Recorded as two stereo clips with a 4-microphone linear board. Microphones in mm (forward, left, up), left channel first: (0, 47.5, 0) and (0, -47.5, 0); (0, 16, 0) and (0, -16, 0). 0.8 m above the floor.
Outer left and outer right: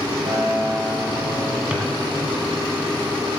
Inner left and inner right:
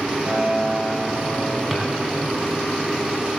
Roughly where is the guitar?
Right.